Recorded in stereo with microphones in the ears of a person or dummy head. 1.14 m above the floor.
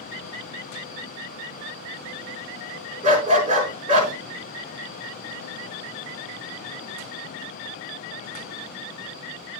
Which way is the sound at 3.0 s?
45° right (ahead or behind).